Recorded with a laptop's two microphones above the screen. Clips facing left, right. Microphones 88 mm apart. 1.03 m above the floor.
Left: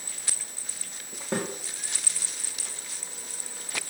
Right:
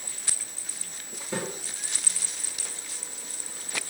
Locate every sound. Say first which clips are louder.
1.3 s a snare drum: left 2 dB; 60° left (ahead or behind), 1.9 m